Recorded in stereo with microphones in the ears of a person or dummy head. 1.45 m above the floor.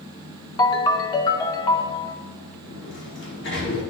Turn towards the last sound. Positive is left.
turn(degrees=60)  # may be behind; listen again after turning